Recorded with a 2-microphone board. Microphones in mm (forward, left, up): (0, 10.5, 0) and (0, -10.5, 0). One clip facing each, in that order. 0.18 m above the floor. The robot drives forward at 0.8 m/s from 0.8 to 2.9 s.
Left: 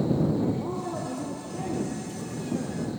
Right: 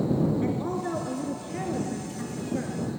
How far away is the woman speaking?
About 2 m.